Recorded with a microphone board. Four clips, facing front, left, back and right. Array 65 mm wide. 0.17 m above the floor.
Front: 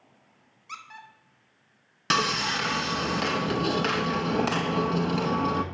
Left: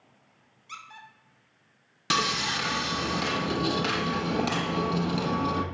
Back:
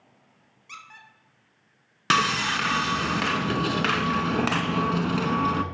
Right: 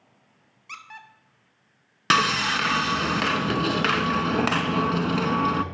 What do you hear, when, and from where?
0.7 s a squeak: 95° right, 0.9 m
2.1 s sawing: 115° right, 0.5 m